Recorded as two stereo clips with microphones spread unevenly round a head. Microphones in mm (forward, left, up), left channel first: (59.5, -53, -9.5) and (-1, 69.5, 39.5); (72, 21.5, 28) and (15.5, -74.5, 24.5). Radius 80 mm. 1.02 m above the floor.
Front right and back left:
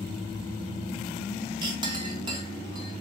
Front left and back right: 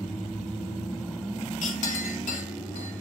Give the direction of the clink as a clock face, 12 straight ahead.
10 o'clock.